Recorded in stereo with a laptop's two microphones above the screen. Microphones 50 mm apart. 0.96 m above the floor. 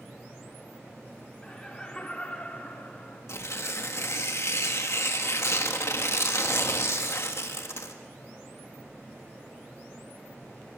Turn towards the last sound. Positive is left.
turn(degrees=65)  # may be behind; listen again after turning